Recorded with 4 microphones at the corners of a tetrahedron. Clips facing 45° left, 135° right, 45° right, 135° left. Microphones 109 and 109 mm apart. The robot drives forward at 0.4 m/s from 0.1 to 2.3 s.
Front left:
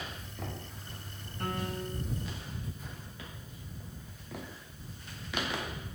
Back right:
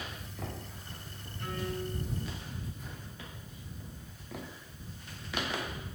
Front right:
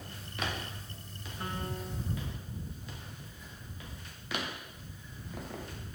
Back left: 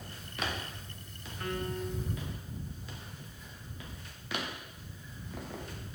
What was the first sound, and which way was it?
A piano, 20° left.